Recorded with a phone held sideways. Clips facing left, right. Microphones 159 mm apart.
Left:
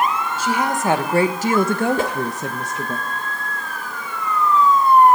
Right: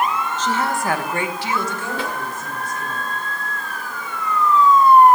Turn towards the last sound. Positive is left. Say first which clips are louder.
# left 5 dB
turn(degrees=45)  # may be behind; listen again after turning